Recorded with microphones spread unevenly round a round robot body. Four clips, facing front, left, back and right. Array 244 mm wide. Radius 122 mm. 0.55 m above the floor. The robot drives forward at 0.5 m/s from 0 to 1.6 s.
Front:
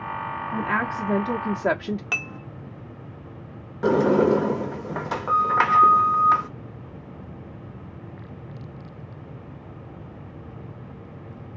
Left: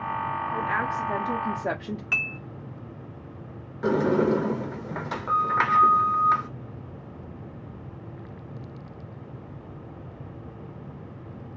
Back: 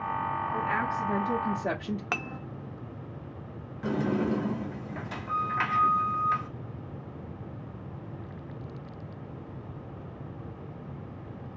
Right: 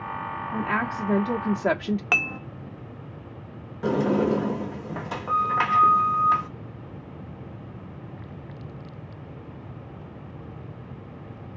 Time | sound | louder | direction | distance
0.5 | a woman speaking | right 3 dB, front 6 dB | 30° right | 1.2 m
2.1 | dishes clattering | right 6 dB, even | 105° right | 0.6 m
3.8 | a sliding door | even, front 10 dB | 5° right | 0.7 m